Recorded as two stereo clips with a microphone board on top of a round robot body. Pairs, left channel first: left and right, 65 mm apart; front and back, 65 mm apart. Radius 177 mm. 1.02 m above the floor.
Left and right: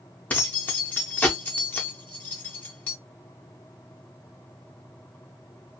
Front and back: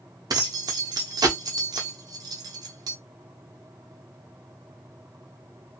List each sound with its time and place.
0.3 s keys jangling: 155° left, 0.5 m